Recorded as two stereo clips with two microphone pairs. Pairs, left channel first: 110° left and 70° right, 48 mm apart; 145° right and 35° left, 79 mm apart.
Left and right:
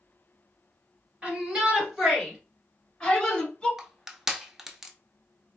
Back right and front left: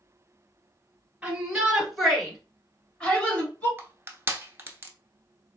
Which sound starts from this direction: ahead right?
A shout, at 1.2 s.